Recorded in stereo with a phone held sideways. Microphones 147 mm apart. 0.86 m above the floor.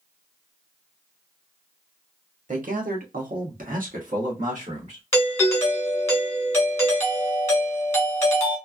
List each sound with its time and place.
2.5 s a man speaking: 60° right (ahead or behind), 1.1 m; by 5.0 s 50° right (ahead or behind), 1.6 m
5.1 s a doorbell: 20° left (ahead or behind), 1.4 m